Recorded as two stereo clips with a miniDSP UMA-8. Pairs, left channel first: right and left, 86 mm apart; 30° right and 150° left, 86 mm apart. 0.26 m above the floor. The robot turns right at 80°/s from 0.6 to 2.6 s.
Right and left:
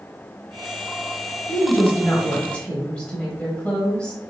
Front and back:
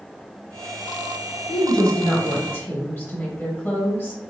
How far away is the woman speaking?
About 1.1 m.